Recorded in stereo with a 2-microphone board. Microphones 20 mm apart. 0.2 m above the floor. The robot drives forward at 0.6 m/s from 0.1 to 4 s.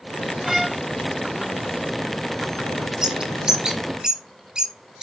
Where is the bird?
30° right (ahead or behind), 2 m; by 5.0 s 40° right (ahead or behind), 1.7 m.